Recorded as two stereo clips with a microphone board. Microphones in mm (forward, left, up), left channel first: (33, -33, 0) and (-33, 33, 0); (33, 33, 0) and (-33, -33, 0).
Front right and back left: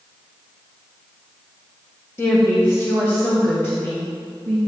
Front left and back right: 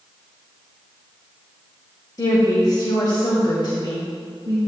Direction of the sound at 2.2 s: 10° left.